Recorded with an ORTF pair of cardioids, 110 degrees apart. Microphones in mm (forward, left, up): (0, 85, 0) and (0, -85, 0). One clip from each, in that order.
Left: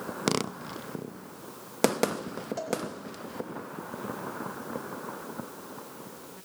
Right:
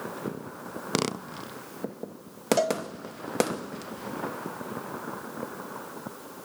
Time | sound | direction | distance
2.6 | a cowbell | 65° right | 2.5 m